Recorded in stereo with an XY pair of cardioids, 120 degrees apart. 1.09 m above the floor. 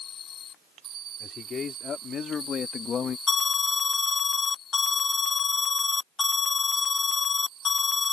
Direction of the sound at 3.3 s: 35° left.